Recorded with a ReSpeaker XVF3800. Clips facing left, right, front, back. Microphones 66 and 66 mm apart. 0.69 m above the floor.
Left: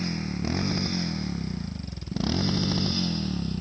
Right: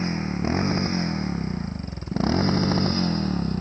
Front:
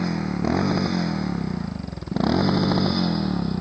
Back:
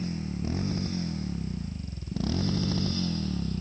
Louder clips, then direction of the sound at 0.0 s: Right 4 dB, front 9 dB; 25° right.